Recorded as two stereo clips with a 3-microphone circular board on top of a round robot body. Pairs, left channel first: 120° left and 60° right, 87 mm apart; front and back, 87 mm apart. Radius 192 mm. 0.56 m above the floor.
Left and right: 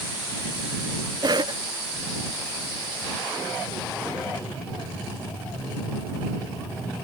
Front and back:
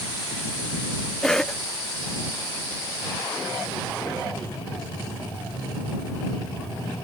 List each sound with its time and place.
1.2 s a cough: 85° right